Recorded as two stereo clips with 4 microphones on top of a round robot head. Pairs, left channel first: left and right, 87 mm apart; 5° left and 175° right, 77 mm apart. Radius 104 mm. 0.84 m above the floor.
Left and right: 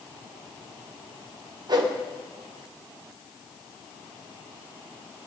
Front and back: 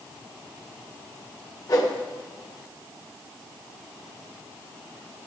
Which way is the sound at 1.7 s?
50° right.